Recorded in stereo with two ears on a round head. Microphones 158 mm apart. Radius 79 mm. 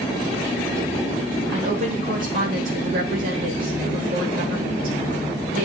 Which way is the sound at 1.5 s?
55° right (ahead or behind).